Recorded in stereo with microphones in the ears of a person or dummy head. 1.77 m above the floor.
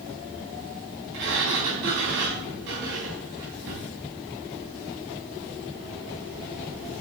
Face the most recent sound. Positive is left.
turn(degrees=-65)  # may be behind; listen again after turning